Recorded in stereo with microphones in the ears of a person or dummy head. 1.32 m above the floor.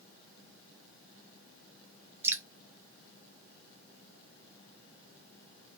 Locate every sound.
2.2 s dripping: 15° right (ahead or behind), 0.6 m